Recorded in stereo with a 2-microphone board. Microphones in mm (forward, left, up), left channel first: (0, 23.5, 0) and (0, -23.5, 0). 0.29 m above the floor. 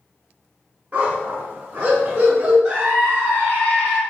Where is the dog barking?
30° right (ahead or behind), 1.0 m.